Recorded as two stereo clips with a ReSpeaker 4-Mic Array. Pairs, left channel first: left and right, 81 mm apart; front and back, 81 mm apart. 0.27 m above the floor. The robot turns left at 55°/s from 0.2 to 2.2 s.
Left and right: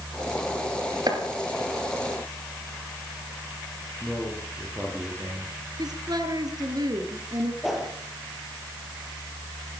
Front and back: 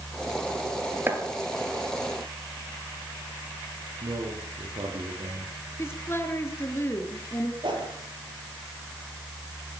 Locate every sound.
1.1 s chopping: 120° right, 3.5 m; by 1.2 s 125° right, 3.5 m
4.0 s a man speaking: 165° right, 7 m
5.8 s a woman speaking: 60° right, 4.5 m
7.6 s a whoosh: straight behind, 7.5 m